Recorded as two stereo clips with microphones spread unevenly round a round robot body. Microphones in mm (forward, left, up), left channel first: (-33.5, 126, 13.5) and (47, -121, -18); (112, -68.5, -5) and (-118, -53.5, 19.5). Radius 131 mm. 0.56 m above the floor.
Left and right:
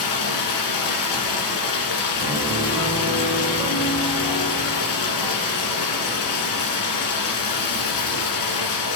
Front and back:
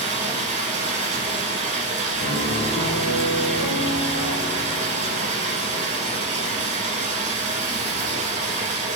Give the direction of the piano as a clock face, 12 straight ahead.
12 o'clock.